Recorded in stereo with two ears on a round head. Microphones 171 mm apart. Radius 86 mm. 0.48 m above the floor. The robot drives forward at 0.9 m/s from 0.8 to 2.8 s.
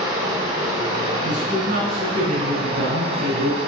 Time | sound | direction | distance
0.0 | running water | 20° right (ahead or behind) | 5 m
1.2 | a man speaking | 30° right (ahead or behind) | 5 m